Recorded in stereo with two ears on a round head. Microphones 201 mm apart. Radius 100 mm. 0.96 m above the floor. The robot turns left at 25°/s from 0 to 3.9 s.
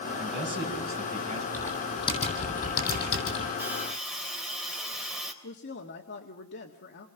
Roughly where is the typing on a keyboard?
Behind.